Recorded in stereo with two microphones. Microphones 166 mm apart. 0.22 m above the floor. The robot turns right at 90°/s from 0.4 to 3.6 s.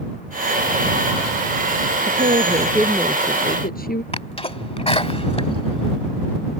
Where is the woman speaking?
75° right; by 4.0 s 65° left.